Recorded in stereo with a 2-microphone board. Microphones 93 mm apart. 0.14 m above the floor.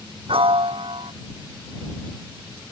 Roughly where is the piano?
Right.